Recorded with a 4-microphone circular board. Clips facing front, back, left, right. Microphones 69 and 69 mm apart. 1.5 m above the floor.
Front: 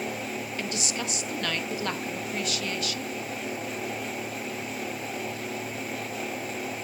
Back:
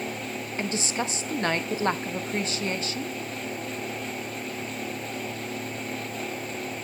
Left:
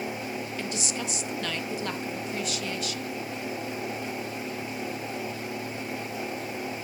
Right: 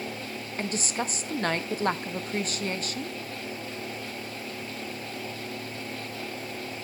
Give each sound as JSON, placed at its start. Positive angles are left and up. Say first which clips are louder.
{"t": 0.6, "sound": "a woman speaking", "louder": "back 6 dB, right 2 dB", "azimuth_deg": -130, "distance_m": 0.6}